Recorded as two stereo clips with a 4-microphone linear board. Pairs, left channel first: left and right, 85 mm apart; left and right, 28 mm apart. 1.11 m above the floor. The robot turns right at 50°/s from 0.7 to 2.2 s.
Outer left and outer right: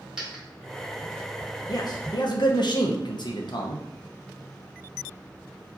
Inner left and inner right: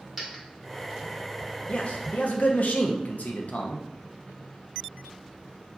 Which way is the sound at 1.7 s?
50° left (ahead or behind).